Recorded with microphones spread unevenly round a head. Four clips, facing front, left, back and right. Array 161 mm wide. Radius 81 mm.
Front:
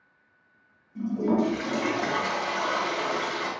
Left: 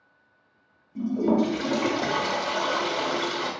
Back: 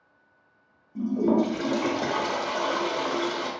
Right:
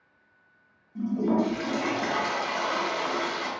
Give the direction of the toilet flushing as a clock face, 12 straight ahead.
7 o'clock.